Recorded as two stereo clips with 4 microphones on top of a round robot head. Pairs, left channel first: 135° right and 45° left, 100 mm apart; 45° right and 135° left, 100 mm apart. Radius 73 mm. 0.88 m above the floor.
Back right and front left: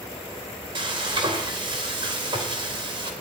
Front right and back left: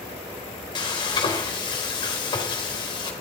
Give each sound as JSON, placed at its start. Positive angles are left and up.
{"t": 0.8, "sound": "frying", "azimuth_deg": 5, "distance_m": 2.0}